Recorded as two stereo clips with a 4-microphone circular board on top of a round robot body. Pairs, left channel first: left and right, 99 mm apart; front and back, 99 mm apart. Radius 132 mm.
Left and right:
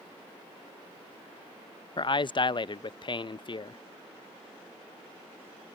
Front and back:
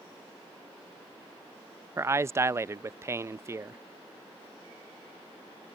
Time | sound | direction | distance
2.0 | a man speaking | 120° left | ?